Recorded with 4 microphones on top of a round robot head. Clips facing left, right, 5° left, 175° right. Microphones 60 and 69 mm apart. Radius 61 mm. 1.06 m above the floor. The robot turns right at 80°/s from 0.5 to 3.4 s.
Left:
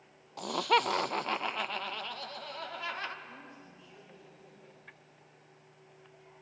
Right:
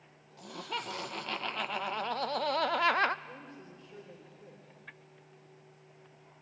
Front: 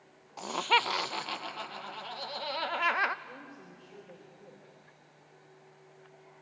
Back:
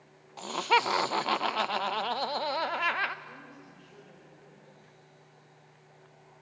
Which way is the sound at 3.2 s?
75° right.